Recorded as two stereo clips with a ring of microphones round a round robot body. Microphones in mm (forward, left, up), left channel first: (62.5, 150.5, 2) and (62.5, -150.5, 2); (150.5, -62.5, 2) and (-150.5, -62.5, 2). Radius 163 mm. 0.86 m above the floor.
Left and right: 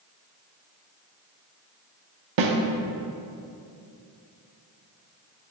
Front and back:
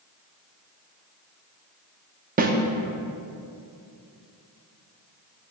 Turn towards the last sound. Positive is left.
turn(degrees=-115)